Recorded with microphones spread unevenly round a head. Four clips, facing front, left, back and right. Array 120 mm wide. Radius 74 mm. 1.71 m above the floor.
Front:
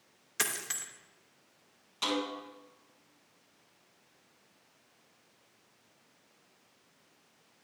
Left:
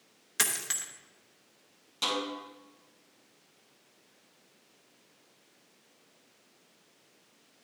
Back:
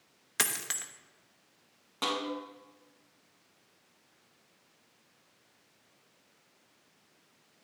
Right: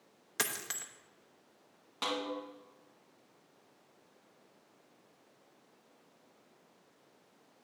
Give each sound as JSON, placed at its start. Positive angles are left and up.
{"t": 0.4, "sound": "a dropped coin", "azimuth_deg": 165, "distance_m": 1.0}
{"t": 2.0, "sound": "a snare drum", "azimuth_deg": -165, "distance_m": 2.5}